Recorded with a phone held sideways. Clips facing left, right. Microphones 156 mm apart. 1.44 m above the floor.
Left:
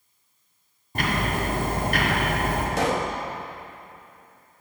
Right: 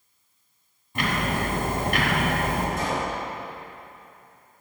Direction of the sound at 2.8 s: 75° left (ahead or behind).